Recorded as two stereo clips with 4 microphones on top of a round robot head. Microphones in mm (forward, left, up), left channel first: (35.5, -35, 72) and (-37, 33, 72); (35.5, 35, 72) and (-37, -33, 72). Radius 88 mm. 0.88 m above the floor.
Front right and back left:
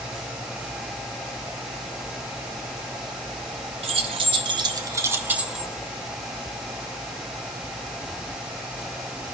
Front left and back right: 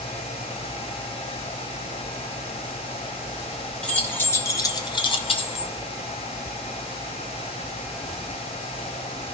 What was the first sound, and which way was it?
Keys jangling, 120° left.